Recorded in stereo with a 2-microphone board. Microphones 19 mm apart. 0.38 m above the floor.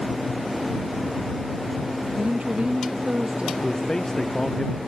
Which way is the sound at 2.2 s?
85° right.